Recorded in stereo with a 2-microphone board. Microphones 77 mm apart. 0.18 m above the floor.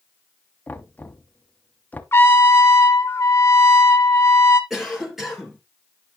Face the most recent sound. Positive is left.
turn(degrees=-5)  # may be behind; listen again after turning